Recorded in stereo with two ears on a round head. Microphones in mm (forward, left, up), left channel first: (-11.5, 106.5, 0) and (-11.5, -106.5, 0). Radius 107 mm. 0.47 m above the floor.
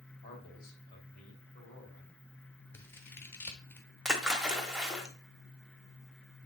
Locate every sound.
0.2 s a man speaking: 35° left (ahead or behind), 2.5 m
2.7 s scissors: 10° left (ahead or behind), 0.9 m
4.0 s a splash: centre (ahead or behind), 1.1 m